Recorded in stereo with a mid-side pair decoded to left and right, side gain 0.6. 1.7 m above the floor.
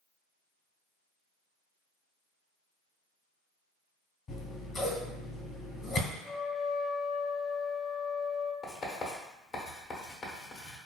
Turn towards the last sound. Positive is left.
turn(degrees=45)